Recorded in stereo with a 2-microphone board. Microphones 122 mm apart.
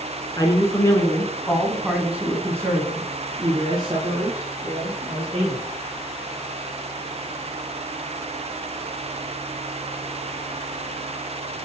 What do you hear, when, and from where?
0.4 s a man speaking: 30° left (ahead or behind), 1.9 m; by 5.7 s 45° right (ahead or behind), 4 m